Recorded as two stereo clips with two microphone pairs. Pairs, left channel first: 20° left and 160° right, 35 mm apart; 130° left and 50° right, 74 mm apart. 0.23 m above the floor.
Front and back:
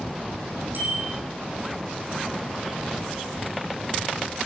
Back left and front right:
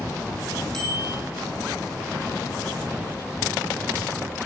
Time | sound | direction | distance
0.7 | a bicycle bell | 145° right | 7.5 m